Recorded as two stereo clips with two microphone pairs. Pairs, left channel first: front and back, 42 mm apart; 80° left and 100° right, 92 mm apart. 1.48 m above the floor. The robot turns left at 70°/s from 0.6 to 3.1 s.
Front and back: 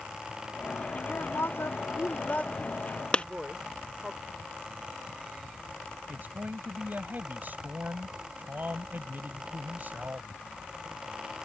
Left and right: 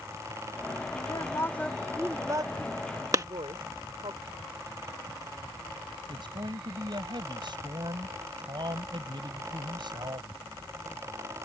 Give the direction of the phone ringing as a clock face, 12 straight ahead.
I don't hear a phone ringing.